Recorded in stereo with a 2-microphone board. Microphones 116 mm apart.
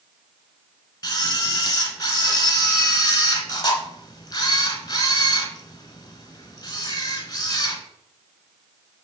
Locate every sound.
1.0 s a camera shutter: 35° left (ahead or behind), 1.3 m